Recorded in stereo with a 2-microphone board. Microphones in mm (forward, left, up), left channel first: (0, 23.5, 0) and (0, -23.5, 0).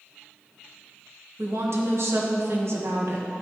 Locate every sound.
1.4 s a woman speaking: 65° right (ahead or behind), 1.3 m